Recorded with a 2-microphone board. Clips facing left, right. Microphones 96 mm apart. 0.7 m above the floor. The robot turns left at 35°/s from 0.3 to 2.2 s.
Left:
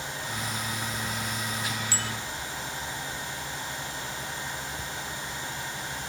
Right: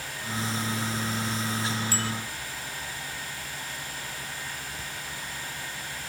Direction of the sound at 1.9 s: 45° right (ahead or behind).